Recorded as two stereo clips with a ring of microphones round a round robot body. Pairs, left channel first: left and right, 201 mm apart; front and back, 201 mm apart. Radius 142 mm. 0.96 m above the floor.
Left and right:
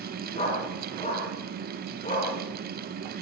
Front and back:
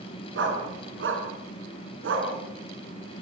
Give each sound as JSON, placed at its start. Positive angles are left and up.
{"t": 0.3, "sound": "a dog barking", "azimuth_deg": 165, "distance_m": 5.0}